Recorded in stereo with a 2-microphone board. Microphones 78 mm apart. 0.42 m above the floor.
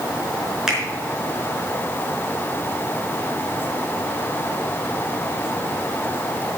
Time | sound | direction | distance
0.7 | a finger snap | 5° right (ahead or behind) | 4.5 m